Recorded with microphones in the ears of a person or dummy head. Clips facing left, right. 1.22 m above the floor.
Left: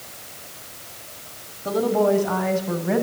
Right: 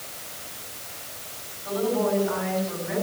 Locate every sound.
1.6 s a woman speaking: 65° left (ahead or behind), 6.5 m; by 3.0 s 60° left (ahead or behind), 7.5 m